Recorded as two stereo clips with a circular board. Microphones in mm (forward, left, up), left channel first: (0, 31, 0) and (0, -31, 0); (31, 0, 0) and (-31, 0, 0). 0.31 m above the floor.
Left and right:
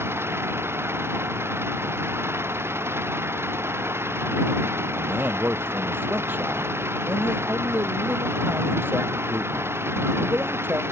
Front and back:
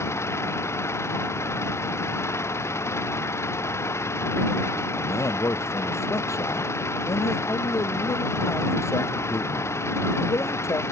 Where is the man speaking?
35° right.